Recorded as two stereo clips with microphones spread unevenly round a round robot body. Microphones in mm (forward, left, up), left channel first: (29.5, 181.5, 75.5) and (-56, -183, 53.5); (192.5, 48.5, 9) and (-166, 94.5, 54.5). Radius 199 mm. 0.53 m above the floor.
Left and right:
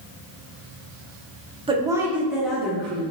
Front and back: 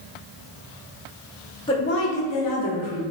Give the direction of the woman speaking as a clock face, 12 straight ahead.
2 o'clock.